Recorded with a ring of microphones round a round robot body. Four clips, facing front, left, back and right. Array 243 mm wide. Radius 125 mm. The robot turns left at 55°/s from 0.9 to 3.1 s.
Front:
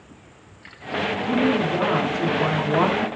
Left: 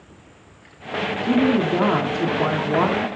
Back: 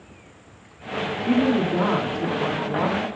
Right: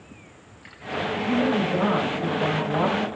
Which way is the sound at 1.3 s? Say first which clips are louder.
Left 5 dB, back 1 dB; 135° left.